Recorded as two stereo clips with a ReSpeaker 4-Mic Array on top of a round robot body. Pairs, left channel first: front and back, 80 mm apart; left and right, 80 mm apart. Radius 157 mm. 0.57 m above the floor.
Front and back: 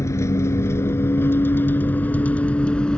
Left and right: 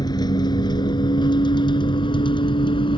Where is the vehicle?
55° left; by 3.0 s 80° left.